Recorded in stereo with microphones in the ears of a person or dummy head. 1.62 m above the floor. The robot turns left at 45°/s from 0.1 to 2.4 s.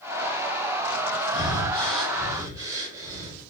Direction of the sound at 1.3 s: 30° left (ahead or behind).